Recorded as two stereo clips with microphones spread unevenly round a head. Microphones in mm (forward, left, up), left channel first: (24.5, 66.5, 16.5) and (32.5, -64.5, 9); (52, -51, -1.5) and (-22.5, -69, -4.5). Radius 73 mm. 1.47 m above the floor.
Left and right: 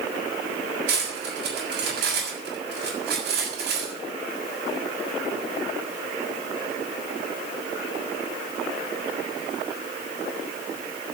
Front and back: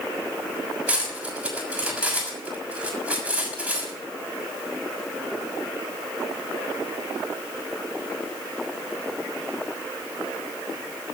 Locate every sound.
0.9 s cutlery clinking: 90° right, 6.5 m